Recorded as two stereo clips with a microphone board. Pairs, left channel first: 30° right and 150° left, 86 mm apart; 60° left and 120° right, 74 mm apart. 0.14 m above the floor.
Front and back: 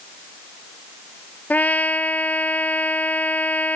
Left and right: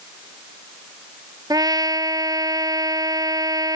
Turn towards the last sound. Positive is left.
turn(degrees=-100)